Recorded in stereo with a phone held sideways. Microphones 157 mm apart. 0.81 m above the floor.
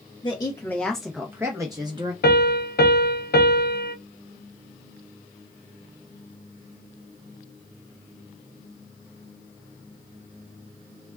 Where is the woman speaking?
30° left (ahead or behind), 0.6 m; by 2.1 s 30° right (ahead or behind), 0.9 m.